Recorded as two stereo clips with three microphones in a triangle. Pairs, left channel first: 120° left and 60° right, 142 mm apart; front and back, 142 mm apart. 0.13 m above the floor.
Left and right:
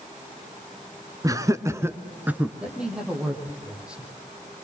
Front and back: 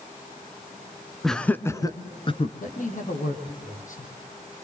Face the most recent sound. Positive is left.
turn(degrees=25)